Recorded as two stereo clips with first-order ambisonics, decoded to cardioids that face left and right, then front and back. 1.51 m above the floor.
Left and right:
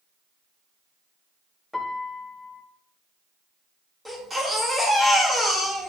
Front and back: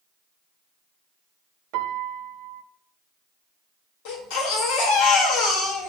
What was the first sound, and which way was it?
A piano, 170° left.